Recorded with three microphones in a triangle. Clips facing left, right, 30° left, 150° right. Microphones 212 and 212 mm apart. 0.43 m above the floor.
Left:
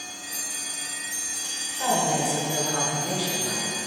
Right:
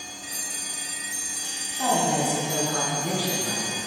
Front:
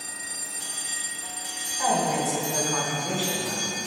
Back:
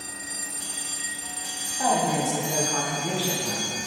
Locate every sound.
1.8 s a woman speaking: 100° right, 4 m; by 3.8 s 65° right, 5.5 m